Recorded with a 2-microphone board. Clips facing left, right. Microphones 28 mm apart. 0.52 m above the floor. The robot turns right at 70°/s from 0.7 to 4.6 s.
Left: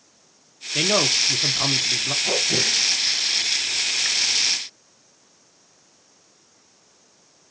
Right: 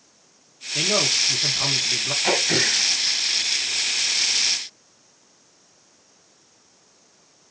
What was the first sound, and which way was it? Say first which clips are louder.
A man speaking: left 1 dB; 25° left (ahead or behind).